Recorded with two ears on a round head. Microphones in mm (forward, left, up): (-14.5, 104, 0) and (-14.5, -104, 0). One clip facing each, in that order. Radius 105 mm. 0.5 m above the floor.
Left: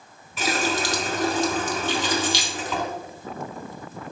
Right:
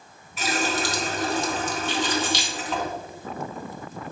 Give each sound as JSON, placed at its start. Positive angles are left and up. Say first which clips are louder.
{"t": 0.4, "sound": "a running tap", "louder": "left 1 dB", "side_deg": 65, "distance_m": 1.1}
{"t": 1.9, "sound": "keys jangling", "louder": "even", "side_deg": 60, "distance_m": 1.5}